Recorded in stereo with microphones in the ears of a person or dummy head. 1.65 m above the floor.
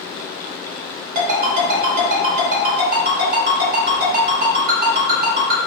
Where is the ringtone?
50° right (ahead or behind), 1.3 m.